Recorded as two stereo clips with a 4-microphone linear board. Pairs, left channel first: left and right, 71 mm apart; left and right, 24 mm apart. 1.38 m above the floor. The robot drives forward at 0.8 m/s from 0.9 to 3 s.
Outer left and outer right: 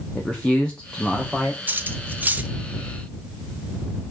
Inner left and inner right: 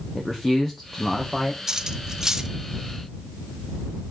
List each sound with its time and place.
0.1 s a man speaking: 10° left (ahead or behind), 1.1 m
1.7 s cutlery clinking: 25° right (ahead or behind), 0.5 m; by 2.5 s 20° right (ahead or behind), 0.6 m